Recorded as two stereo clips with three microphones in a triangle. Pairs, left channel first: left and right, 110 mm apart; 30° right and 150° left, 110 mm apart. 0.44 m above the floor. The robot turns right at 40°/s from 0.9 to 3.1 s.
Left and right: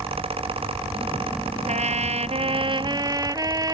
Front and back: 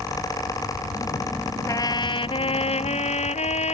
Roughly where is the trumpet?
Right.